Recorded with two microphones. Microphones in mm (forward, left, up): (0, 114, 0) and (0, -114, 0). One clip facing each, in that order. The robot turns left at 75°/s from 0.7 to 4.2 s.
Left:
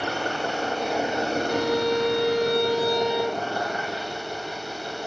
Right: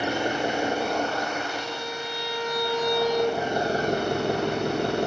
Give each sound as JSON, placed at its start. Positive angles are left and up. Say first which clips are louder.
{"t": 0.0, "sound": "an engine running", "louder": "right 3 dB", "azimuth_deg": -165, "distance_m": 1.1}
{"t": 1.5, "sound": "a violin", "louder": "left 11 dB", "azimuth_deg": 105, "distance_m": 1.1}